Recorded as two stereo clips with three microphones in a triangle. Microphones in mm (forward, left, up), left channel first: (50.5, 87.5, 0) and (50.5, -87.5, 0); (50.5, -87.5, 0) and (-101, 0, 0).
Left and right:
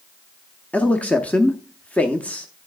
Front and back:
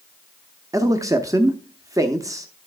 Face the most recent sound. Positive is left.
turn(degrees=150)